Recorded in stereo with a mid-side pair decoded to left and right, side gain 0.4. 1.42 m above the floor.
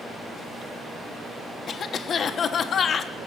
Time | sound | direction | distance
1.7 | a cough | 55° left | 1.3 m